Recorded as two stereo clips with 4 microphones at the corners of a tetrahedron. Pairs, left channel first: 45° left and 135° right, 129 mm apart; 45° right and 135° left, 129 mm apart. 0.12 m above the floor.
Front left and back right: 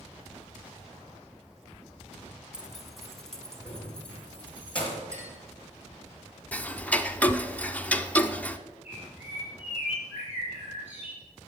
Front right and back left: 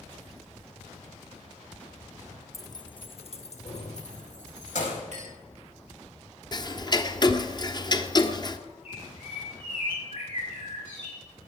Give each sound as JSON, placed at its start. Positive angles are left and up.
{"t": 2.5, "sound": "keys jangling", "azimuth_deg": -60, "distance_m": 1.1}
{"t": 5.1, "sound": "a clink", "azimuth_deg": 160, "distance_m": 8.0}
{"t": 6.5, "sound": "ticking", "azimuth_deg": -25, "distance_m": 0.8}
{"t": 8.8, "sound": "a bird", "azimuth_deg": -60, "distance_m": 6.0}